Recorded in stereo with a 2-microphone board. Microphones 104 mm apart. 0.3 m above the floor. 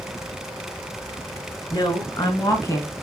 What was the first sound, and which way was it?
A woman speaking, 50° left (ahead or behind).